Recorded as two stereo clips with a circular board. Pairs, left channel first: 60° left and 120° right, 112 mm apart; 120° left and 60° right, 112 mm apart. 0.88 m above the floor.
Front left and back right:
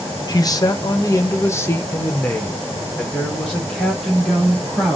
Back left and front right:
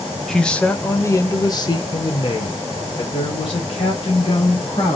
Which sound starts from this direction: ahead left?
A man speaking, at 0.3 s.